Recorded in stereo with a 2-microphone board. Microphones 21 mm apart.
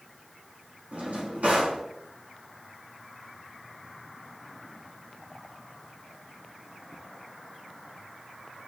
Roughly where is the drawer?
Right.